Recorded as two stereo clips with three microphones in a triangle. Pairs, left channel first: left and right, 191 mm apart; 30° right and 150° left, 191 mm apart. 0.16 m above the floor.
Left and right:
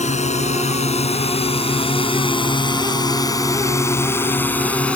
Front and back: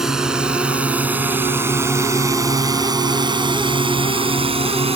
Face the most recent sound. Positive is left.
turn(degrees=170)